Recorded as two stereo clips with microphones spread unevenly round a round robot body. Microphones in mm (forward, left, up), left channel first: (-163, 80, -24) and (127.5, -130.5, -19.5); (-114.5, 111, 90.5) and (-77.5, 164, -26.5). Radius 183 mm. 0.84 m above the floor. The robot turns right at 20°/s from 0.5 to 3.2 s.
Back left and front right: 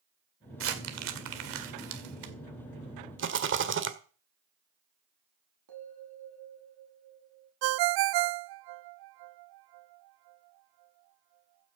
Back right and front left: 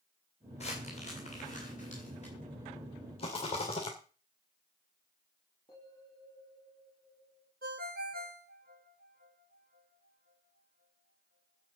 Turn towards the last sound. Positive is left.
turn(degrees=-35)